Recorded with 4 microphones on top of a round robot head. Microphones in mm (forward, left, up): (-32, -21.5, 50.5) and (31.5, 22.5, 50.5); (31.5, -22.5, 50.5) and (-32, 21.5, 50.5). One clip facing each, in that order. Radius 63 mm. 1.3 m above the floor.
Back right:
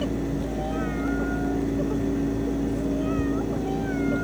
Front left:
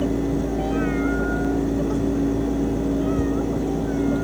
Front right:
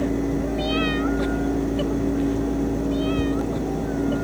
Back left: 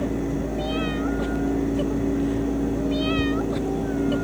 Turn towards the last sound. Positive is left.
No sound to turn to.